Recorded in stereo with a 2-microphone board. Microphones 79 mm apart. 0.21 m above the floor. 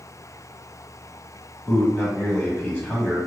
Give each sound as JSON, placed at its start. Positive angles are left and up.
{"t": 1.7, "sound": "a man speaking", "side_deg": 25, "distance_m": 1.1}